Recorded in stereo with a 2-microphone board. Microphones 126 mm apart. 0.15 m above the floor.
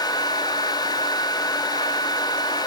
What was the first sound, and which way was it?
Only background noise.